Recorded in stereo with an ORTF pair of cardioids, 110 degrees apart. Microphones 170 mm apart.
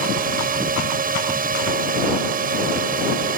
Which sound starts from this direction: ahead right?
A drone, at 0.0 s.